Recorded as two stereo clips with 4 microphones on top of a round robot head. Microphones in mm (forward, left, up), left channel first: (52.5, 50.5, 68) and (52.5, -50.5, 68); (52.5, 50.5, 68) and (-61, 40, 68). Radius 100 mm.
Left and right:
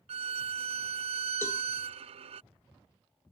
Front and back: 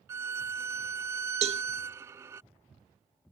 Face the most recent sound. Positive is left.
turn(degrees=165)